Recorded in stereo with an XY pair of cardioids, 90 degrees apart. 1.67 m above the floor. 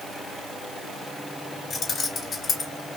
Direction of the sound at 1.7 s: 50° left.